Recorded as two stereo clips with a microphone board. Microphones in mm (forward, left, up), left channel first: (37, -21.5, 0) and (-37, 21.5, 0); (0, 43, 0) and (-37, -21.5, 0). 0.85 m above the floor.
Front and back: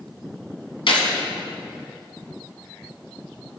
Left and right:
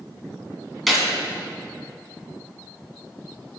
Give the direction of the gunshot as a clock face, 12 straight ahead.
1 o'clock.